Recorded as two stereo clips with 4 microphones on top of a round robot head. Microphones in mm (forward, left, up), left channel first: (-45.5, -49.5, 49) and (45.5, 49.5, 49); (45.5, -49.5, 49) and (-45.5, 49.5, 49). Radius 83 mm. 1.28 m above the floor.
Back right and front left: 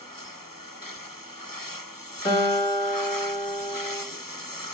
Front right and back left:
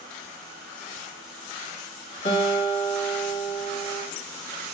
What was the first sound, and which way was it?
A guitar, 75° right.